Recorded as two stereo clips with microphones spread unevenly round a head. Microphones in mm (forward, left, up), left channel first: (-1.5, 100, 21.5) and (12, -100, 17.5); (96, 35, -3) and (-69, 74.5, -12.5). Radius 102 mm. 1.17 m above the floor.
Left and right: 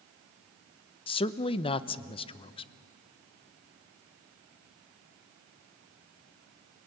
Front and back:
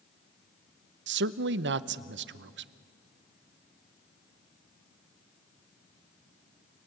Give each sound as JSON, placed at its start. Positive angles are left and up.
{"t": 1.1, "sound": "a man speaking", "azimuth_deg": 160, "distance_m": 0.8}